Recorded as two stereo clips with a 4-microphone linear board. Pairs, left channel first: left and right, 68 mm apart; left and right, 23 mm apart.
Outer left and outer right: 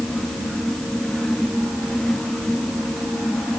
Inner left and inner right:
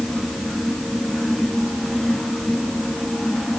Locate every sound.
Only background noise.